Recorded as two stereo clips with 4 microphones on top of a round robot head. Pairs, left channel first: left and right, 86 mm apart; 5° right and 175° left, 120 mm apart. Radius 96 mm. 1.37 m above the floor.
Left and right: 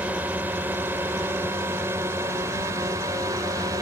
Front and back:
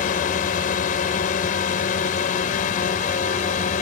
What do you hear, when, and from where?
0.0 s a drone: 15° right; by 3.8 s 30° right